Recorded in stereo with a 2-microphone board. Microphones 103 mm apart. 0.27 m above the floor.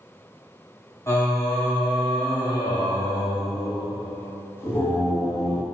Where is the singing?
25° left (ahead or behind), 0.6 m.